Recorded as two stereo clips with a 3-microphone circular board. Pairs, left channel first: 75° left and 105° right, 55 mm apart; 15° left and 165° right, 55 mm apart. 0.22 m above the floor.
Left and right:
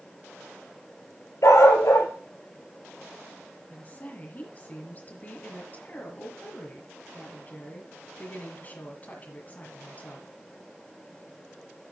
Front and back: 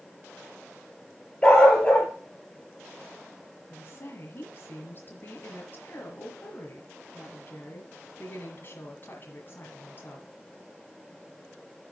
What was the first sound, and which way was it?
A dog barking, 85° left.